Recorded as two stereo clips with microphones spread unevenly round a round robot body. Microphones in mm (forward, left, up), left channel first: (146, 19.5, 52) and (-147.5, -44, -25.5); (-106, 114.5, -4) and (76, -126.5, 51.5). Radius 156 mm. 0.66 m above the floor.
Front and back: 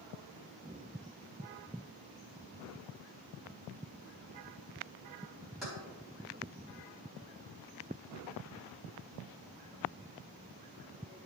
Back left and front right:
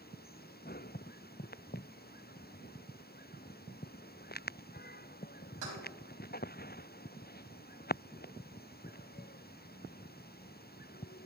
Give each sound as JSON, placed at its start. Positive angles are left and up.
{"t": 5.6, "sound": "keys jangling", "azimuth_deg": -80, "distance_m": 4.0}